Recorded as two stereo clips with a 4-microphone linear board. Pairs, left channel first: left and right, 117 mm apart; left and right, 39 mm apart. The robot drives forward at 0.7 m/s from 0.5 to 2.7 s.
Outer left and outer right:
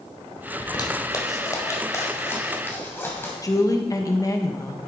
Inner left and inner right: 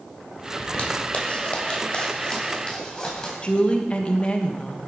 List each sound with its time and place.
0.6 s a zipper: 40° left (ahead or behind), 1.5 m; by 3.3 s 20° left (ahead or behind), 2.5 m
3.4 s a woman speaking: 30° left (ahead or behind), 1.2 m